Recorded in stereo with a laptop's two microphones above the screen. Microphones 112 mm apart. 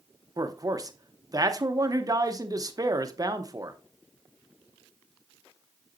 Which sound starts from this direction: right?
A man speaking, at 0.4 s.